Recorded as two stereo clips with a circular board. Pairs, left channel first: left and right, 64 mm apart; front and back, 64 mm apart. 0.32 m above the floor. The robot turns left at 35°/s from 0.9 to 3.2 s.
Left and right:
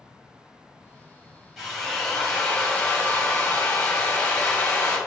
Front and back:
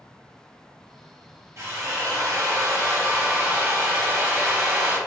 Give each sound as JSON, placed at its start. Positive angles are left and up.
{"t": 1.6, "sound": "a drill", "azimuth_deg": -170, "distance_m": 1.1}